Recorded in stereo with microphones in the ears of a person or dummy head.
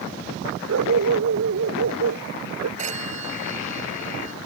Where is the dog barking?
75° right (ahead or behind); by 2.7 s 80° right.